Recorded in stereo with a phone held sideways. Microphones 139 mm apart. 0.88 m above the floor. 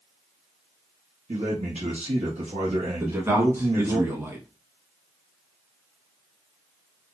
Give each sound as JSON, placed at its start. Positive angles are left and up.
{"t": 1.3, "sound": "a man speaking", "side_deg": -50, "distance_m": 1.0}
{"t": 3.0, "sound": "a man speaking", "side_deg": -20, "distance_m": 1.3}